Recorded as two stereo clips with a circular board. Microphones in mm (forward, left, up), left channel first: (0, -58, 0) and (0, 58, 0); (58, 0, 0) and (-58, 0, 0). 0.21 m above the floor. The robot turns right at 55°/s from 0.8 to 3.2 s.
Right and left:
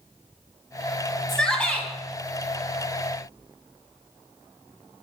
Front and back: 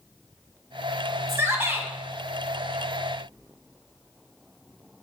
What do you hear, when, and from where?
1.3 s a shout: 170° right, 1.7 m; by 1.9 s 140° right, 1.7 m